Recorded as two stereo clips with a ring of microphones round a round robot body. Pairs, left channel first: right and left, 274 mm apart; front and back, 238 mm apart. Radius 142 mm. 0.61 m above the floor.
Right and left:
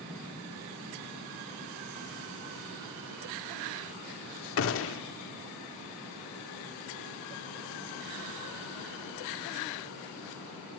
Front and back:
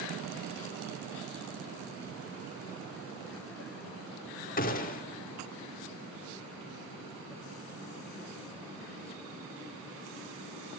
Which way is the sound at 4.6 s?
55° right.